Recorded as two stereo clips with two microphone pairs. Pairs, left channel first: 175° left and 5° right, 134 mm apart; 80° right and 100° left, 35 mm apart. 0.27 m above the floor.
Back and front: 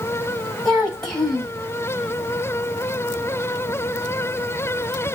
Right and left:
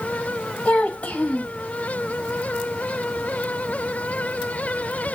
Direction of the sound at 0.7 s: 100° right.